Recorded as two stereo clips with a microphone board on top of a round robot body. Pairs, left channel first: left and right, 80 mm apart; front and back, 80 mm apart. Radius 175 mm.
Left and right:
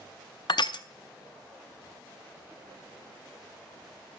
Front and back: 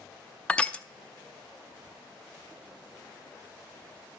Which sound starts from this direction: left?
Crushing, at 0.5 s.